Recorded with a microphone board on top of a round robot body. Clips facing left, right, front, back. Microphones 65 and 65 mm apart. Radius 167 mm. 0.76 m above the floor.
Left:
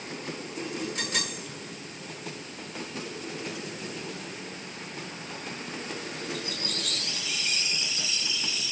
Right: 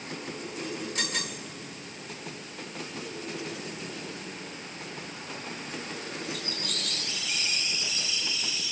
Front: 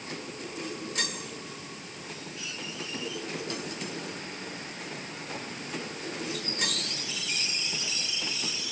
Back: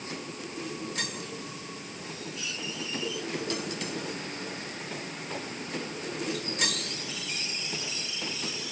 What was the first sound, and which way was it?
Only background noise.